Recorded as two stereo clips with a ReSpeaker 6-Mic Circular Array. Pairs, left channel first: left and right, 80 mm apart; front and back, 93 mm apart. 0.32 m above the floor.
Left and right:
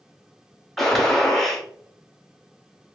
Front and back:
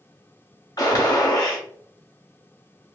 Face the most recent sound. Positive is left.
turn(degrees=5)